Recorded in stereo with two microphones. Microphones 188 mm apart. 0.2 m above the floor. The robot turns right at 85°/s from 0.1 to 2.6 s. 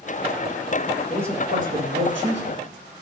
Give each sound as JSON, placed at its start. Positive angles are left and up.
{"t": 1.1, "sound": "a man speaking", "azimuth_deg": 180, "distance_m": 9.5}